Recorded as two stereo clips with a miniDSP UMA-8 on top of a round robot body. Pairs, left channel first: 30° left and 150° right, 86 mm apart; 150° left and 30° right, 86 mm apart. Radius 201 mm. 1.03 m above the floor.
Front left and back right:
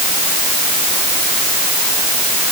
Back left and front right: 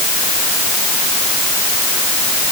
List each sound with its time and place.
Only background noise.